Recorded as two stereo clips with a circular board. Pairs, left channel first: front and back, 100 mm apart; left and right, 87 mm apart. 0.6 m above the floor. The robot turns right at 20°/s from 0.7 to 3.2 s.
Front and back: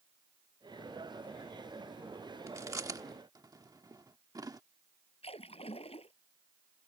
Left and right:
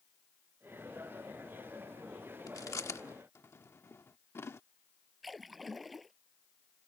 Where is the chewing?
125° left; by 4.6 s 140° left.